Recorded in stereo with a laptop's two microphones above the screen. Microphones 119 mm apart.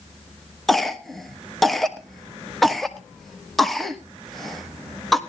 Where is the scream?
I don't hear a scream.